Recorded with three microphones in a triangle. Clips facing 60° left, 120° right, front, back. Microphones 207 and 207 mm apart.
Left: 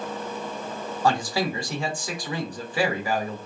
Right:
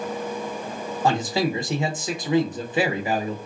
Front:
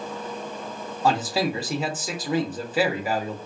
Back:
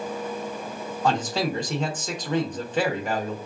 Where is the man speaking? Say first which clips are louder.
Right 2 dB, front 2 dB; 75° right, 0.8 m.